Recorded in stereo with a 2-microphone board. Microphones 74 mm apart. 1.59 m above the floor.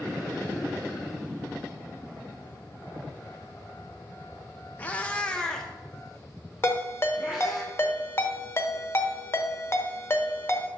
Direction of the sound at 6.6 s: 35° left (ahead or behind).